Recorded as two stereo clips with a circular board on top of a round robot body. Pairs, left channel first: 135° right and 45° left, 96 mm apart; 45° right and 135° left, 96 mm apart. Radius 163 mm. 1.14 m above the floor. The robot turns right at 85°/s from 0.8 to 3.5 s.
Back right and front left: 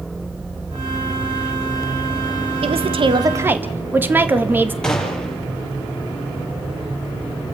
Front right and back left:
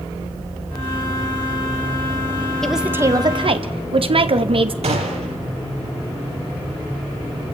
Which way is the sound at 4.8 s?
140° left.